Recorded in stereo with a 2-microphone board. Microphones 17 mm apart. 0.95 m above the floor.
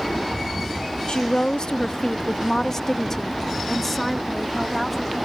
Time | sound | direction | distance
1.1 | a woman speaking | 60° left (ahead or behind) | ?